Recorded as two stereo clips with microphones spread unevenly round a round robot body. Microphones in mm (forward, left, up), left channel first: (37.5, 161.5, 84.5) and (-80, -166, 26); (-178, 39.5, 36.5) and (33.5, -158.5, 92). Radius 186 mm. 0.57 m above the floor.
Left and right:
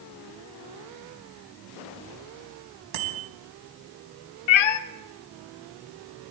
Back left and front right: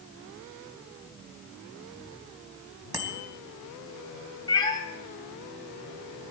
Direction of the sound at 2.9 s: 125° right.